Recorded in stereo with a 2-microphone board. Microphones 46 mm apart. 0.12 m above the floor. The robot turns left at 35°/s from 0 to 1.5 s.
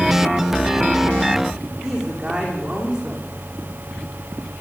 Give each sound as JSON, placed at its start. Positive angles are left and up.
{"t": 1.8, "sound": "a woman speaking", "side_deg": -15, "distance_m": 7.5}